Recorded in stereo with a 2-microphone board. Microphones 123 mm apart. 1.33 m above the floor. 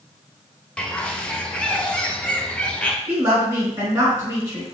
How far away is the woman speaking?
About 3 m.